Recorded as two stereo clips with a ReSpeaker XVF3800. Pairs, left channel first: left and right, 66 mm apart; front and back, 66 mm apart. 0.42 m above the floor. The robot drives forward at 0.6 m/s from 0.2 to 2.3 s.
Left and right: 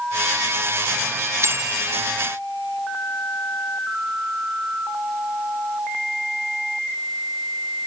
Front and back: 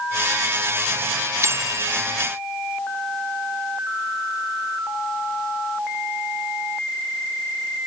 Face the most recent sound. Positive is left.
turn(degrees=-140)